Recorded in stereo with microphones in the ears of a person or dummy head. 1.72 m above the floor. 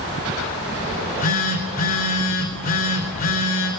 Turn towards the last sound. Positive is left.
turn(degrees=50)  # may be behind; listen again after turning